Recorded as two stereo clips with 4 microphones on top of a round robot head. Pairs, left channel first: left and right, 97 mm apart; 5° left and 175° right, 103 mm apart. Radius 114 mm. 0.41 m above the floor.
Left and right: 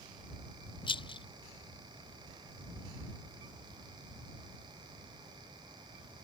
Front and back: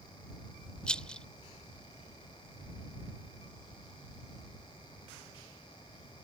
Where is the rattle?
80° left.